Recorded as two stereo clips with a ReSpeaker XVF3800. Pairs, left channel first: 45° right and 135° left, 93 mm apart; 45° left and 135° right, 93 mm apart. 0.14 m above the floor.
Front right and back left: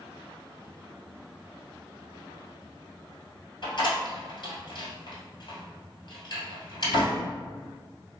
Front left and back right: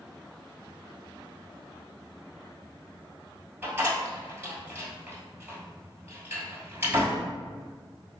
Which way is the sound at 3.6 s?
70° right.